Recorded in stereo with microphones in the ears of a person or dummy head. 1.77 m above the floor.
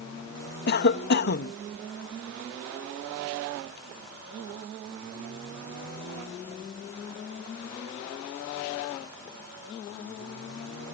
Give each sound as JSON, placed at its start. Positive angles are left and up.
{"t": 0.7, "sound": "a cough", "side_deg": 50}